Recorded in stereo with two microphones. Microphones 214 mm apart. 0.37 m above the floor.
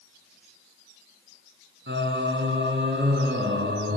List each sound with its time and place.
1.9 s singing: 60° right (ahead or behind), 2 m